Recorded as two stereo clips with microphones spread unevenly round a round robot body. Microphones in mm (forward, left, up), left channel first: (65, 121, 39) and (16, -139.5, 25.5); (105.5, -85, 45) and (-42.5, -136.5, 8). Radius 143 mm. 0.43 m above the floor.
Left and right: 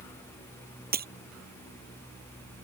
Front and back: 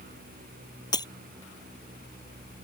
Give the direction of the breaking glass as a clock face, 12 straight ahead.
1 o'clock.